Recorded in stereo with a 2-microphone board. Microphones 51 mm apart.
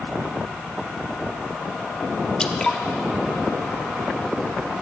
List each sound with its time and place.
2.4 s dripping: 15° left (ahead or behind), 0.7 m